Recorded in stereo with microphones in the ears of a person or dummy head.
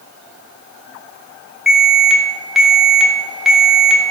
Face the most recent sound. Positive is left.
turn(degrees=0)  # may be behind; listen again after turning